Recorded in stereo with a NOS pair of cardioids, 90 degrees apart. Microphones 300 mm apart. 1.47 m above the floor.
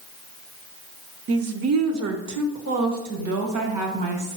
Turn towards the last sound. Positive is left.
turn(degrees=-75)